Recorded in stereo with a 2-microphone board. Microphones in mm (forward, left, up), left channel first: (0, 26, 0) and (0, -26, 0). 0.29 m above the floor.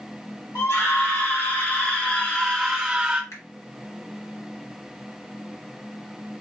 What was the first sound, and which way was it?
A scream, 60° left (ahead or behind).